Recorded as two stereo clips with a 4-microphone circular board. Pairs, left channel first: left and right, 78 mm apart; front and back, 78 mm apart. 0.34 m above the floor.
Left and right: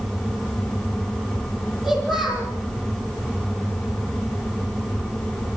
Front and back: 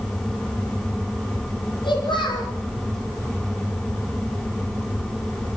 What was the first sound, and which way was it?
A child speaking, 15° right.